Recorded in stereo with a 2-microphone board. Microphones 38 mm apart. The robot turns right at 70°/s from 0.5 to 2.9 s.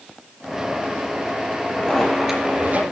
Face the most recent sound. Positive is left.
turn(degrees=-130)